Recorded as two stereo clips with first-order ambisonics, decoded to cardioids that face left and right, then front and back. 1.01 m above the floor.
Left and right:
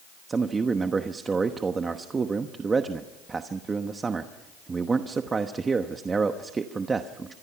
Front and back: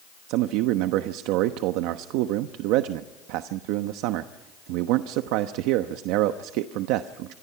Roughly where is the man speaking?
Behind.